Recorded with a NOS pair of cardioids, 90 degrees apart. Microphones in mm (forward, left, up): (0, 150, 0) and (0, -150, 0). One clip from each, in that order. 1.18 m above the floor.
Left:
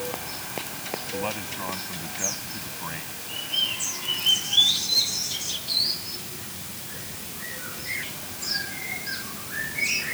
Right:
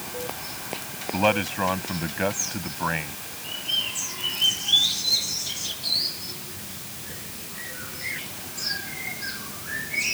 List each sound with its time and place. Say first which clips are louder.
1.1 s a man speaking: right 12 dB; 70° right